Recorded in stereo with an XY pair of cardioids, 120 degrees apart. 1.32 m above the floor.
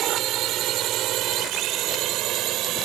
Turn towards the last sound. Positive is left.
turn(degrees=-75)